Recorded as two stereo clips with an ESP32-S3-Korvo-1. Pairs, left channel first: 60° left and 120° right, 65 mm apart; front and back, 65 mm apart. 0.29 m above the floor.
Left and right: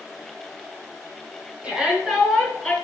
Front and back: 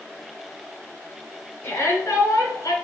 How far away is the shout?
About 2.5 m.